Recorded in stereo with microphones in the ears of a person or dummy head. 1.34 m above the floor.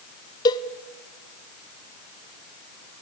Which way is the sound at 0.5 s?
20° left (ahead or behind).